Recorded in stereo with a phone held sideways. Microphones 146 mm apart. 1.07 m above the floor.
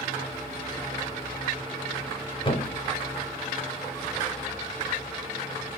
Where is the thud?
35° left (ahead or behind), 1.0 m.